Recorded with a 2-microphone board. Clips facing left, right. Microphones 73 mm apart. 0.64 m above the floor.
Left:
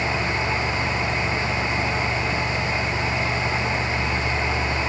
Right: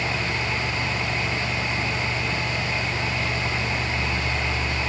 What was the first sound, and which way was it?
Only background noise.